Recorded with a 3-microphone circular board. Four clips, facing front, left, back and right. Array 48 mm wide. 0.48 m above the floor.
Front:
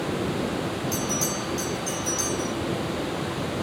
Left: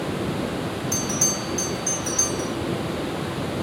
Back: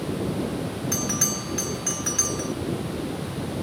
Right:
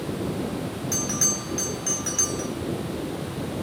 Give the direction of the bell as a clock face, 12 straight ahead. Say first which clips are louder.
Left 2 dB, front 1 dB; 5 o'clock.